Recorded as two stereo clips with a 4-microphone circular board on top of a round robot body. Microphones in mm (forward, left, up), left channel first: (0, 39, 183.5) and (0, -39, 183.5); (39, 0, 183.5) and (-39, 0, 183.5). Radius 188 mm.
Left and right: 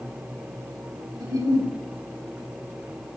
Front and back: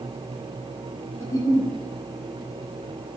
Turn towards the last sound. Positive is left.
turn(degrees=-55)